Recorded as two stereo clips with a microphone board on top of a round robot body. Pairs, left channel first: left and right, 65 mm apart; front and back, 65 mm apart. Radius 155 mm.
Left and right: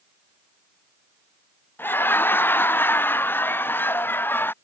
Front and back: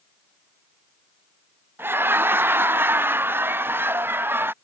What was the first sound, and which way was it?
Laughter, 135° left.